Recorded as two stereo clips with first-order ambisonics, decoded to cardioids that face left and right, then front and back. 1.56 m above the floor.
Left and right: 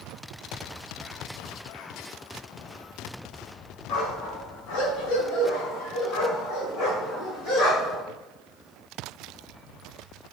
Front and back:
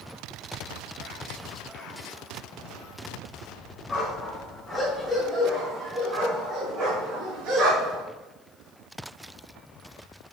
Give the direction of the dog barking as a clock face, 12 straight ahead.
9 o'clock.